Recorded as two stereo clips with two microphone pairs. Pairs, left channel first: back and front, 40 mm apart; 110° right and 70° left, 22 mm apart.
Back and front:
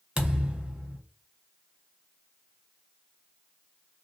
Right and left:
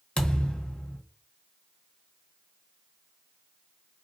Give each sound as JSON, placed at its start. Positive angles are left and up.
{"t": 0.2, "sound": "a thud", "azimuth_deg": -65, "distance_m": 0.9}